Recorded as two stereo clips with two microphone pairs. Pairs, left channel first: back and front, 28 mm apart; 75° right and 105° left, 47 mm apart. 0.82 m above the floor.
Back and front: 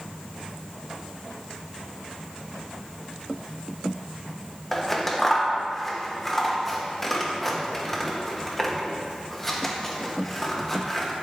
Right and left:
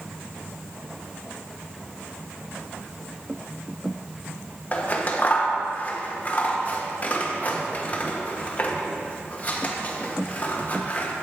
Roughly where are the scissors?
Right.